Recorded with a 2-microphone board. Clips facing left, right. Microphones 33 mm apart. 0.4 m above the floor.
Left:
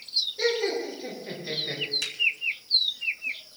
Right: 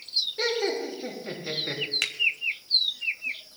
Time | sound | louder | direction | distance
0.4 | laughter | left 2 dB | 50° right (ahead or behind) | 5 m
2.0 | a finger snap | right 4 dB | 60° right (ahead or behind) | 1.3 m